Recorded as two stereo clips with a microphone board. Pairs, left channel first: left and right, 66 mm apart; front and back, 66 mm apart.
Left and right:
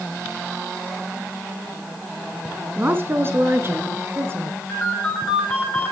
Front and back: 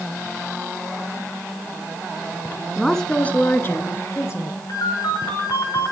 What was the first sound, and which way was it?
A woman speaking, 95° right.